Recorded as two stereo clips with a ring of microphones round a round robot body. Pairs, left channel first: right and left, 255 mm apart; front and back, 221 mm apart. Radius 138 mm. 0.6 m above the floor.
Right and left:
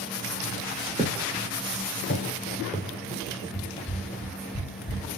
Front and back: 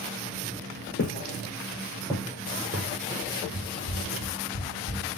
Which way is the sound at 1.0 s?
15° left.